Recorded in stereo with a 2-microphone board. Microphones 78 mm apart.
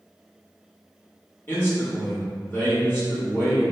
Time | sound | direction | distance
1.5 | a man speaking | 30° left (ahead or behind) | 1.2 m